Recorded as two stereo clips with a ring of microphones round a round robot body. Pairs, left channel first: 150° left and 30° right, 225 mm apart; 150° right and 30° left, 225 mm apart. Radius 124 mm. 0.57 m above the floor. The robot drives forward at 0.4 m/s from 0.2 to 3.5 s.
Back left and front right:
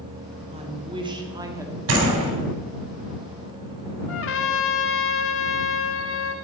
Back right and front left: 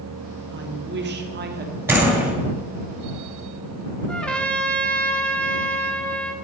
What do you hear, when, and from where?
0.5 s a woman speaking: 30° left, 1.6 m; by 1.8 s 45° left, 1.3 m
1.9 s a door slam: 50° right, 3 m
4.1 s a trumpet: 125° left, 0.9 m